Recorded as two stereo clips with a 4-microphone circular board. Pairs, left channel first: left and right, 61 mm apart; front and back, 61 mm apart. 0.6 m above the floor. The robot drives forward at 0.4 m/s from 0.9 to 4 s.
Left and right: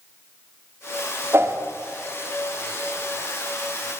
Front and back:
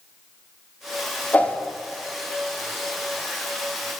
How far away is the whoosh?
About 0.7 m.